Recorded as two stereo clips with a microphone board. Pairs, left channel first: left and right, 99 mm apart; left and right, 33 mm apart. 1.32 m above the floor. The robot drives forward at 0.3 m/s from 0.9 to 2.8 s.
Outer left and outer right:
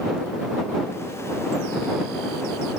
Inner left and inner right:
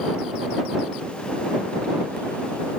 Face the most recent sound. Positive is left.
No sound to turn to.